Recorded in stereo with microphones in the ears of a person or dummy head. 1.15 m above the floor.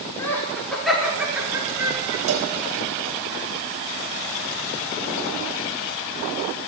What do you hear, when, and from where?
0.2 s laughter: 10° left (ahead or behind), 4 m; by 2.2 s 25° right (ahead or behind), 4 m
2.3 s a cowbell: 85° right, 3 m